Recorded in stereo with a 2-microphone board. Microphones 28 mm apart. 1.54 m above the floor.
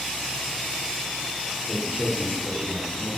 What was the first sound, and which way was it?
A man speaking, 15° right (ahead or behind).